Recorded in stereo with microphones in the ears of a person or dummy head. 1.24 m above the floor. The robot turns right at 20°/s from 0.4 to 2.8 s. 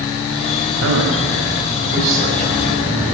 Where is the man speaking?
70° right, 6 m; by 3.1 s 30° right, 6 m.